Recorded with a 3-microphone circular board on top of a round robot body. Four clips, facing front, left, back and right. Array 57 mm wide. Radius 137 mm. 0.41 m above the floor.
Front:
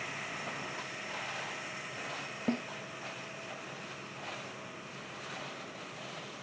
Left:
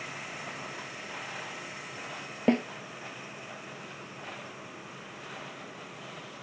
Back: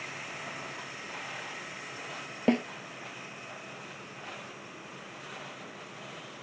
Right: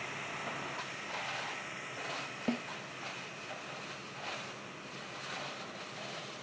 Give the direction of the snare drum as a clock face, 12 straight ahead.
8 o'clock.